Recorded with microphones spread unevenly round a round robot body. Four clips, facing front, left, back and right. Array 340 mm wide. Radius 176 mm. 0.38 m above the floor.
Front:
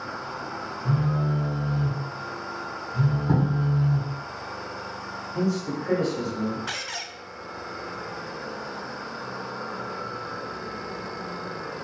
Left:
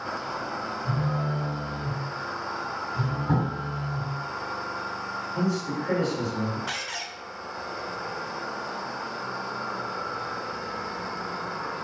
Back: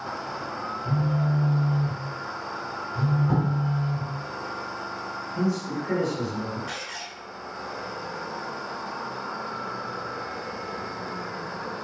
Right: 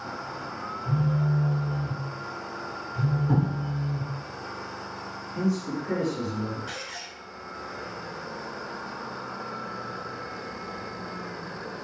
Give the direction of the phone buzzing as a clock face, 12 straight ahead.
11 o'clock.